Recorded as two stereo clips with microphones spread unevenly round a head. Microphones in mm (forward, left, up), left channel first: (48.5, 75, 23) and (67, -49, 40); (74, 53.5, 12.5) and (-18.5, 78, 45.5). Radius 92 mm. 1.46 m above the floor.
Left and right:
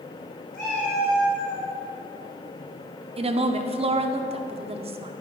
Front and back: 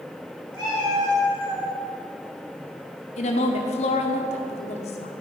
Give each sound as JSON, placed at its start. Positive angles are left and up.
{"t": 0.5, "sound": "a cat meowing", "azimuth_deg": 140, "distance_m": 3.0}
{"t": 3.2, "sound": "a woman speaking", "azimuth_deg": -40, "distance_m": 0.7}